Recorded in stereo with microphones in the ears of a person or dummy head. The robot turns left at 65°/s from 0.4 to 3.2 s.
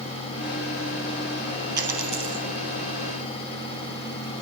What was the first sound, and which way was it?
A dropped coin, 160° right.